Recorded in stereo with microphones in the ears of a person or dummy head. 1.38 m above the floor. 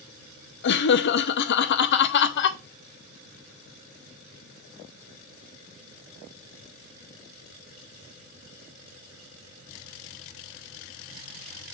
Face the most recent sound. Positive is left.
turn(degrees=60)  # may be behind; listen again after turning